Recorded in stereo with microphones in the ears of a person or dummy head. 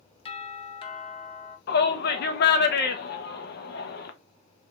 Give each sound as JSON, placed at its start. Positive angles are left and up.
{"t": 0.2, "sound": "a doorbell", "side_deg": 25, "distance_m": 0.8}
{"t": 1.7, "sound": "a shout", "side_deg": 60, "distance_m": 0.8}